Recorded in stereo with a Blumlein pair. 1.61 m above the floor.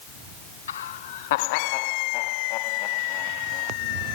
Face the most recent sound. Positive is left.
turn(degrees=35)